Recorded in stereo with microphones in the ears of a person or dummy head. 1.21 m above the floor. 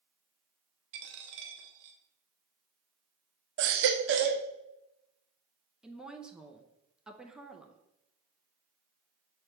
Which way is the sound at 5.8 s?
Centre (ahead or behind).